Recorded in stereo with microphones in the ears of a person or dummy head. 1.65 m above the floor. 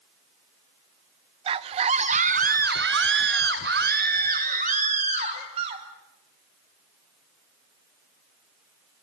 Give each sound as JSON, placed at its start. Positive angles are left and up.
{"t": 1.5, "sound": "a scream", "side_deg": -30, "distance_m": 1.3}